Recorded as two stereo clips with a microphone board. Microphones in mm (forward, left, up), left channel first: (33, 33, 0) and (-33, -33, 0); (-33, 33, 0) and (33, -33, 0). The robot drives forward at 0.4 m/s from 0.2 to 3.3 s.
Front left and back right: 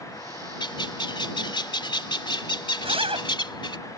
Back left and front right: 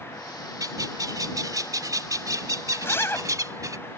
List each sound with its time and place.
0.6 s a bird: 5° left; by 3.8 s 10° left
2.8 s a zipper: 155° right